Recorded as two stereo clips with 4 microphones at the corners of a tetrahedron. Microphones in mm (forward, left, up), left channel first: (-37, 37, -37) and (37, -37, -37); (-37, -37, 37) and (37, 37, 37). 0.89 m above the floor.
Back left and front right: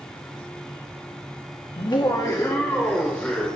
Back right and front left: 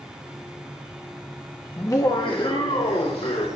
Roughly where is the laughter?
Behind.